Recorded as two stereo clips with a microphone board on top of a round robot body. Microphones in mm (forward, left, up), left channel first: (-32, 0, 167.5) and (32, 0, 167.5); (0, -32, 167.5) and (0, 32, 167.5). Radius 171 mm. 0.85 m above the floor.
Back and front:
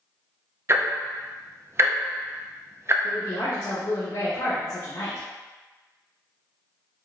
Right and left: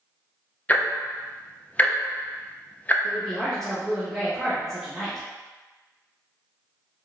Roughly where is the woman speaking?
Behind.